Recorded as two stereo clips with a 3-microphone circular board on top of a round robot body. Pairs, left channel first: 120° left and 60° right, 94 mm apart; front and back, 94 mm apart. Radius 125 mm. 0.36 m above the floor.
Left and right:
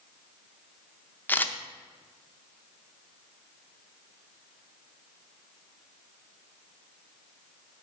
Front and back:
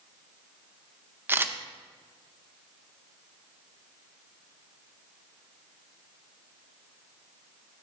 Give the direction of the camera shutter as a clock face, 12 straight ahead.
7 o'clock.